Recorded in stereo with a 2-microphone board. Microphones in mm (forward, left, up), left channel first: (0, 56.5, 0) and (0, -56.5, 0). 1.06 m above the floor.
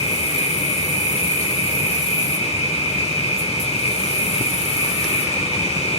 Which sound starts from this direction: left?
An insect, at 0.0 s.